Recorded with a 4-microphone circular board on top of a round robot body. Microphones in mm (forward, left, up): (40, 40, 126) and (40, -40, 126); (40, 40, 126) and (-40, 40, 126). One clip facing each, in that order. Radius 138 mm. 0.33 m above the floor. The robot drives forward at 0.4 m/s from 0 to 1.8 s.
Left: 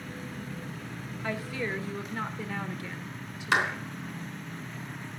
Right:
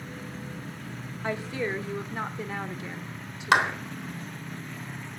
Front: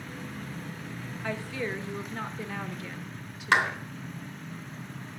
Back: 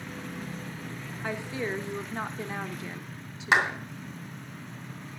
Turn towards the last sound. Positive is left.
turn(degrees=-105)